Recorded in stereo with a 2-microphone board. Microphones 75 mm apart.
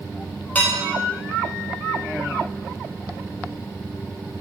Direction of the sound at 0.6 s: 25° left (ahead or behind).